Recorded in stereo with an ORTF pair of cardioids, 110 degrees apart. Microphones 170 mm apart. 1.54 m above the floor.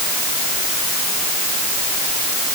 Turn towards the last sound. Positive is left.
No sound to turn to.